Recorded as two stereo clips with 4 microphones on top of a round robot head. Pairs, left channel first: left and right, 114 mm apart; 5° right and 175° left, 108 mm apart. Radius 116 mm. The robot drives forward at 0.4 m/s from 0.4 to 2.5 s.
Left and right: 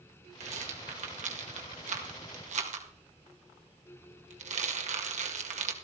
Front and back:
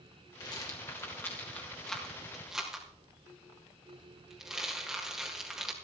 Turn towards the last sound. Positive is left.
turn(degrees=-100)